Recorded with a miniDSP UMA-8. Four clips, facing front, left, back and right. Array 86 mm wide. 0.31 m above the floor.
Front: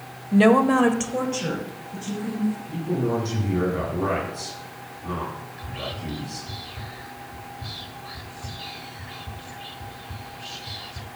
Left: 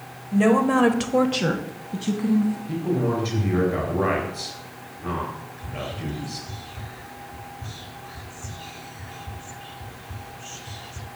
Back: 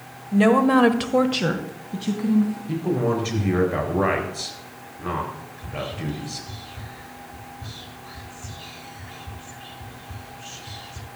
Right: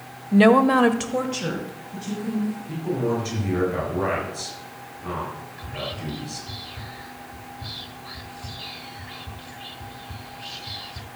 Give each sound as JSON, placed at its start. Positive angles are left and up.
{"t": 0.3, "sound": "a woman speaking", "azimuth_deg": -65, "distance_m": 1.0}
{"t": 2.7, "sound": "a man speaking", "azimuth_deg": 170, "distance_m": 5.0}
{"t": 5.6, "sound": "whispering", "azimuth_deg": -60, "distance_m": 1.5}